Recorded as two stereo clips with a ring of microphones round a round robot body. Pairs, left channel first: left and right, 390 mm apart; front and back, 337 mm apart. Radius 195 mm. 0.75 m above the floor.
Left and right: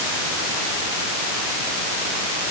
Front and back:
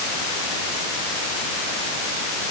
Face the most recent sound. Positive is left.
No sound to turn to.